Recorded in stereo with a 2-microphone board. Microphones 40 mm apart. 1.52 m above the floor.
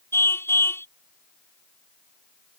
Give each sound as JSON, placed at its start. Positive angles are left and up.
{"t": 0.1, "sound": "a car horn", "side_deg": 85}